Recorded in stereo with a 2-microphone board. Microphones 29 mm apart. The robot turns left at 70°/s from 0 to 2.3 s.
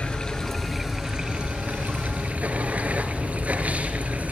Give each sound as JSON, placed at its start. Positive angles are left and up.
{"t": 0.0, "sound": "running water", "azimuth_deg": 50, "distance_m": 1.7}